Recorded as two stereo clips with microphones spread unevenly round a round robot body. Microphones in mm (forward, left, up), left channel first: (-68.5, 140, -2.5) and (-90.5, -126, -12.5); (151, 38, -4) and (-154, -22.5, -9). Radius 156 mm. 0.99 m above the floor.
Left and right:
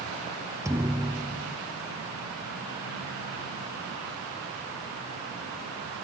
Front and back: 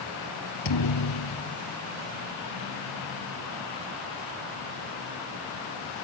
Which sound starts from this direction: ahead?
A thud, at 0.7 s.